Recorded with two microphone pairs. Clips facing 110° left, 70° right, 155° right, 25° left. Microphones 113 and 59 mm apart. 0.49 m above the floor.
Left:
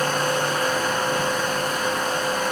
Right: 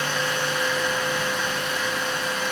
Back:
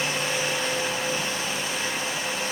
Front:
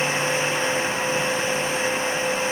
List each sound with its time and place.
Only background noise.